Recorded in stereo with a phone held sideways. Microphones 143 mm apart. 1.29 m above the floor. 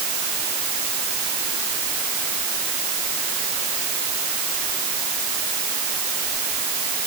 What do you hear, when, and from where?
Only background noise.